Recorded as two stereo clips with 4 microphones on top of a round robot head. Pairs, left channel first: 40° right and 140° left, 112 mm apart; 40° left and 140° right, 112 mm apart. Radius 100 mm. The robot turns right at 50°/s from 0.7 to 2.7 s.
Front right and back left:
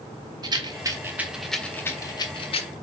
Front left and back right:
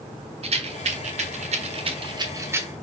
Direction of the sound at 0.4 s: 165° right.